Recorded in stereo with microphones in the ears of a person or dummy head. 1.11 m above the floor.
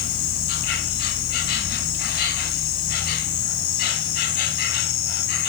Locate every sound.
0.0 s an insect: 50° left (ahead or behind), 2 m